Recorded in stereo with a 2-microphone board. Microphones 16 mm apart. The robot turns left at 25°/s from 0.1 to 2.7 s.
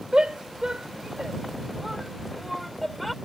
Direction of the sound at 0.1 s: 70° right (ahead or behind).